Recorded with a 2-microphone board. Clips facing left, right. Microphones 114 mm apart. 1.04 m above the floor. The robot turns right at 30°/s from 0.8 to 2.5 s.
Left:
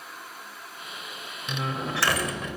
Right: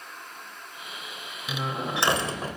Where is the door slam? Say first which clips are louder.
Even; 175° right, 3 m; by 2.6 s 145° right, 3 m.